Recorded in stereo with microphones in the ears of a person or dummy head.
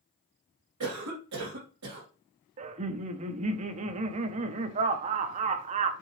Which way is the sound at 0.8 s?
80° right.